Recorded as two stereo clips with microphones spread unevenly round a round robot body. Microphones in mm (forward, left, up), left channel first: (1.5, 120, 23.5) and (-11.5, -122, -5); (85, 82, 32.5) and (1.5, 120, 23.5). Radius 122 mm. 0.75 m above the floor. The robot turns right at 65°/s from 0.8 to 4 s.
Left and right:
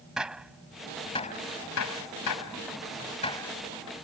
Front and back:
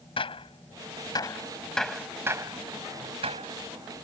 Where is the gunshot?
5° right; by 3.5 s 175° left.